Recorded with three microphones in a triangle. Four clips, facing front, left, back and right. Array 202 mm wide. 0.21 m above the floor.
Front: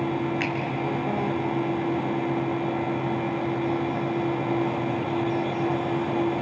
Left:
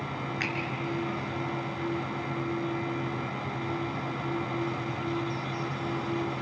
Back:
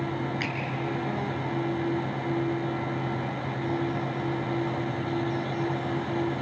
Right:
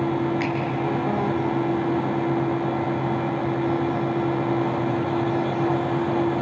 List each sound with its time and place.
0.4 s a finger snap: 25° left, 3 m